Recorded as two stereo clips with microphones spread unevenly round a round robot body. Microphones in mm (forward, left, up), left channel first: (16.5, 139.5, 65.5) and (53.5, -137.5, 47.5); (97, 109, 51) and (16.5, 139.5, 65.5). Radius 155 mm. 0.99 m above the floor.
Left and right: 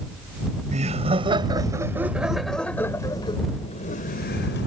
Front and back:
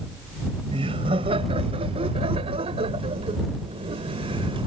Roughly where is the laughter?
Behind right.